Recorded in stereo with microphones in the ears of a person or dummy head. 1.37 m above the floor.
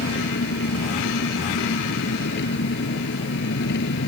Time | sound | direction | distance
0.0 | an engine running | 60° left (ahead or behind) | ?